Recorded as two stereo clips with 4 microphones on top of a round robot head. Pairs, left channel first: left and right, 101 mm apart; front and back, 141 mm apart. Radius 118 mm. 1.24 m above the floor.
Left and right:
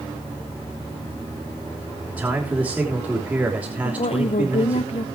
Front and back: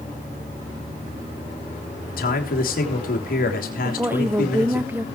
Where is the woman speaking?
105° left, 0.8 m.